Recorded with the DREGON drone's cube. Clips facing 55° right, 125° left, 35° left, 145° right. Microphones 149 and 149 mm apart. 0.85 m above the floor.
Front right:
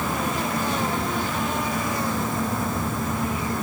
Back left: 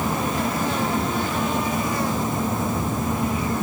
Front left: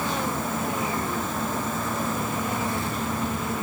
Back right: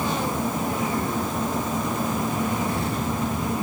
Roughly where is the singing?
No singing in this recording.